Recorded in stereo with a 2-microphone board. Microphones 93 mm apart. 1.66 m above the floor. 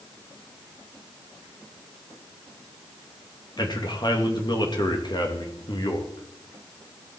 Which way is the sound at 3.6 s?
50° left (ahead or behind).